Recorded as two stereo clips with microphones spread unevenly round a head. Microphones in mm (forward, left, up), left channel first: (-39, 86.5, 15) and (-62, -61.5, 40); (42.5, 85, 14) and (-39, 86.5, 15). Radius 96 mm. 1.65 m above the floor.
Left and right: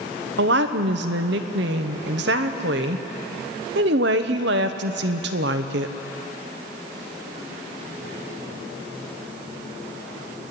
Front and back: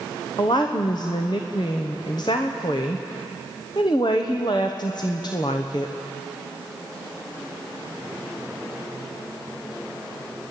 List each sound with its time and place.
0.4 s a woman speaking: 65° right, 1.0 m